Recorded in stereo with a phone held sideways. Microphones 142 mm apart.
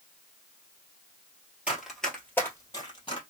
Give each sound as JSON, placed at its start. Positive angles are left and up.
{"t": 1.7, "sound": "running footsteps", "side_deg": -10, "distance_m": 1.7}